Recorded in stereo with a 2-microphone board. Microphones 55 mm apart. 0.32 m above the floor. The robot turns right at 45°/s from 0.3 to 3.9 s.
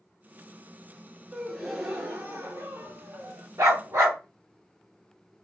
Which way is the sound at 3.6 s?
80° right.